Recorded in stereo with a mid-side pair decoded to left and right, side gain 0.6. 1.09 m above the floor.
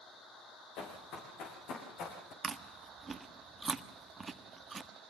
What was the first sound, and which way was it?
Running footsteps, 70° left.